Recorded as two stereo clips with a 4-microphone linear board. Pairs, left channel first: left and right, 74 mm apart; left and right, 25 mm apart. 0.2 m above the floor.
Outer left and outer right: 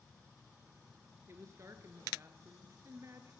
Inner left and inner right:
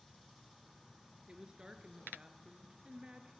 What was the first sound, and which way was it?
A woman speaking, 40° right (ahead or behind).